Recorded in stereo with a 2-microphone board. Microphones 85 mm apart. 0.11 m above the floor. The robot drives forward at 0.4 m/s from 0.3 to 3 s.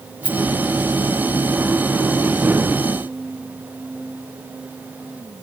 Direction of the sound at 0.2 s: 65° right (ahead or behind).